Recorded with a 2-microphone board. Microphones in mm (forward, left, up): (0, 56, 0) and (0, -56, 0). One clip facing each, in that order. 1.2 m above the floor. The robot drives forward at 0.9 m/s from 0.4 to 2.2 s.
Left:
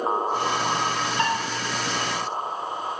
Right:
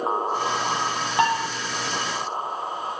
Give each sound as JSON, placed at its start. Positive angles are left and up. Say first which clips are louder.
{"t": 1.2, "sound": "dishes clattering", "louder": "right 5 dB", "side_deg": -70, "distance_m": 2.0}